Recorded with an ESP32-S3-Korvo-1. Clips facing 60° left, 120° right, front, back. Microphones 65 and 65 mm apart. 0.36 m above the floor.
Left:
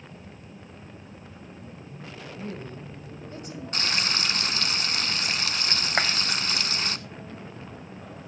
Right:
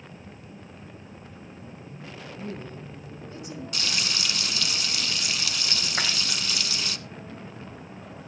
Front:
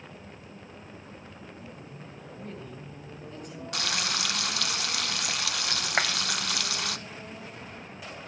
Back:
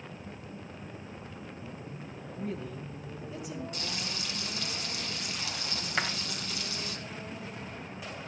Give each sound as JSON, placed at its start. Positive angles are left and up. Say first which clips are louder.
{"t": 2.4, "sound": "a woman speaking", "louder": "even, back 5 dB", "azimuth_deg": 95, "distance_m": 2.0}
{"t": 3.7, "sound": "frying", "louder": "left 4 dB, front 6 dB", "azimuth_deg": 10, "distance_m": 0.7}
{"t": 6.0, "sound": "a clap", "louder": "left 4 dB, front 4 dB", "azimuth_deg": 45, "distance_m": 2.0}